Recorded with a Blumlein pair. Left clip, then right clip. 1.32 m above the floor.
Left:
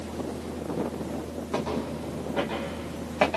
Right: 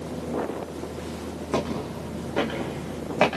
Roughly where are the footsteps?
Right.